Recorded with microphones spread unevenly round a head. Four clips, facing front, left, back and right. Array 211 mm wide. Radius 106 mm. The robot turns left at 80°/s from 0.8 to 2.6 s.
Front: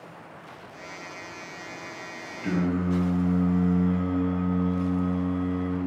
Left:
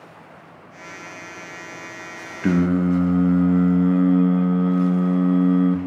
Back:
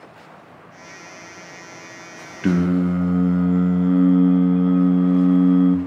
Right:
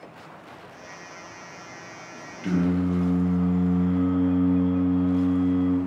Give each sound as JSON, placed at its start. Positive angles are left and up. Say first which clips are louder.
{"t": 2.4, "sound": "singing", "louder": "left 5 dB, back 7 dB", "azimuth_deg": 140, "distance_m": 1.0}